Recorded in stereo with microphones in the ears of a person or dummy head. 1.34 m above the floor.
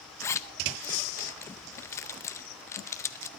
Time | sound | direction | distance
0.2 | a zipper | 15° left (ahead or behind) | 0.7 m